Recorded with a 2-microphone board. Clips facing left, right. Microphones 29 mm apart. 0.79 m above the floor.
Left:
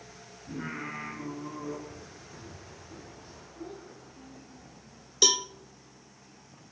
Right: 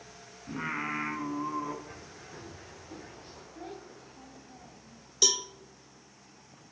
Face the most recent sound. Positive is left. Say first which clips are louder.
# left 3 dB
turn(degrees=20)  # may be behind; listen again after turning